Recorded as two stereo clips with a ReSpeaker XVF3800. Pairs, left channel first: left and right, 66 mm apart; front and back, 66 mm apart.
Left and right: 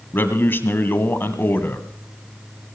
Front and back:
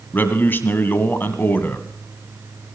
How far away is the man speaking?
About 1.4 m.